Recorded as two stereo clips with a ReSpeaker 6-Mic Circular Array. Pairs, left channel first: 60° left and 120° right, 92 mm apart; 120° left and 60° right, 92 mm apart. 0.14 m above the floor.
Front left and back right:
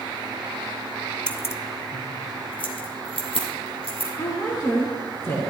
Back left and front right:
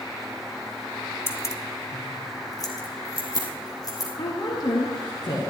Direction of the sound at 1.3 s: 125° left.